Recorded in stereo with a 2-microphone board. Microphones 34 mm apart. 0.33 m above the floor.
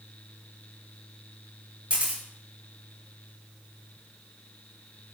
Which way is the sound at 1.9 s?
35° right (ahead or behind).